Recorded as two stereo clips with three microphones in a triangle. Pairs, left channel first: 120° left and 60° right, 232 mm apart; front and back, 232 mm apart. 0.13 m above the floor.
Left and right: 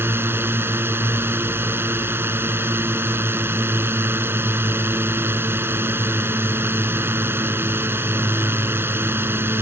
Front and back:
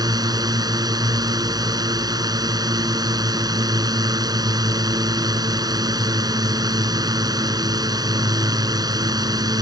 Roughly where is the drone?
Behind right.